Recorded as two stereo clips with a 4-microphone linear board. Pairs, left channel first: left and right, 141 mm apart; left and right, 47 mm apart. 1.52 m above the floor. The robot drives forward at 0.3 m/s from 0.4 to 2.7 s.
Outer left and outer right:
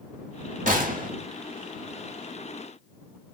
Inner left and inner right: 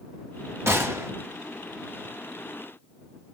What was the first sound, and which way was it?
A gunshot, 65° right (ahead or behind).